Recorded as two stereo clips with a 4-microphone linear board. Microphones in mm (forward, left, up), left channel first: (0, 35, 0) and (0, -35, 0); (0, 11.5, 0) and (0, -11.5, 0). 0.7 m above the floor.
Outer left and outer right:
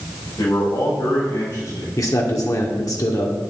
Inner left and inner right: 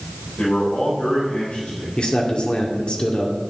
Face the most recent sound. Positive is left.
turn(degrees=50)  # may be behind; listen again after turning